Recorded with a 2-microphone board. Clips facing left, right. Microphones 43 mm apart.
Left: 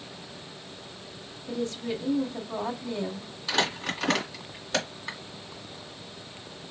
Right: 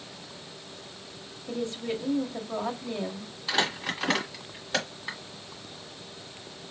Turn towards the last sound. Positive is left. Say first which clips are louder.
# even
turn(degrees=-5)  # may be behind; listen again after turning